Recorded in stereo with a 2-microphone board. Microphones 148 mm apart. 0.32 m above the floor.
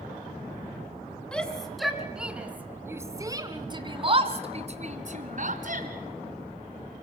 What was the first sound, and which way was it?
A shout, 5° left (ahead or behind).